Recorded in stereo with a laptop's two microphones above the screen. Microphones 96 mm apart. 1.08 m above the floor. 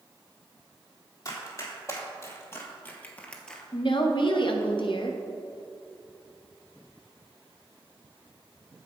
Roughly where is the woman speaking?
Left.